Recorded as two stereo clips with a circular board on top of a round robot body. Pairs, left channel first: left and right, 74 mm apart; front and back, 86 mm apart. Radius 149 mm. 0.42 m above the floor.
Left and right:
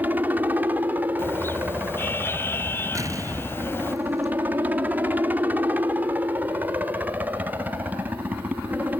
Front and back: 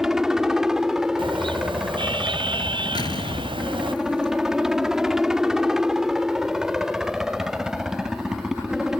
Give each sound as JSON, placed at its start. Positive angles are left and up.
{"t": 0.0, "sound": "a helicopter", "azimuth_deg": -105}
{"t": 1.2, "sound": "a car horn", "azimuth_deg": 155}
{"t": 3.0, "sound": "an explosion", "azimuth_deg": -40}